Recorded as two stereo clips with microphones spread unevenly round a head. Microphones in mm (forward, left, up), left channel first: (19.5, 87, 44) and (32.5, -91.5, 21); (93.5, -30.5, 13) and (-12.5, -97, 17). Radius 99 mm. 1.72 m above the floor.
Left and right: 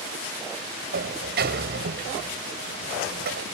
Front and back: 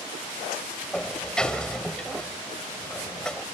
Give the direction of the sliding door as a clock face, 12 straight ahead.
2 o'clock.